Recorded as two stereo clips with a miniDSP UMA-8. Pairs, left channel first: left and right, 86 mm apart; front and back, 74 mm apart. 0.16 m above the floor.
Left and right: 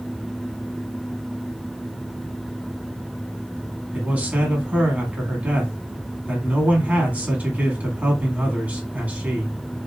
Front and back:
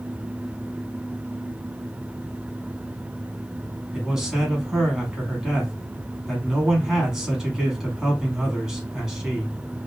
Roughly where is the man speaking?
Behind right.